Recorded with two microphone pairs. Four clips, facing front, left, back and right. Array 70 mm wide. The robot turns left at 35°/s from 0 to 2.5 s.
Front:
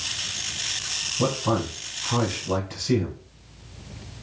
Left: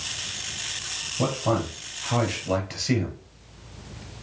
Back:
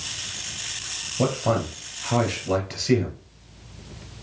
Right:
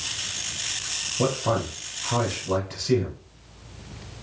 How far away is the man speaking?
About 2.5 m.